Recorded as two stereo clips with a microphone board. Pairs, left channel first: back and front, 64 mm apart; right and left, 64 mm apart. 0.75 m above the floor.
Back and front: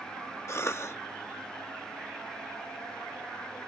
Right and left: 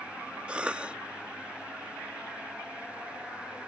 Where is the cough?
155° left.